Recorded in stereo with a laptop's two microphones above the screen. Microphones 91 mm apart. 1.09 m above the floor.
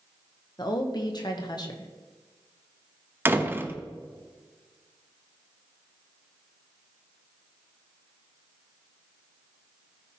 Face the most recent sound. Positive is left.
turn(degrees=-25)  # may be behind; listen again after turning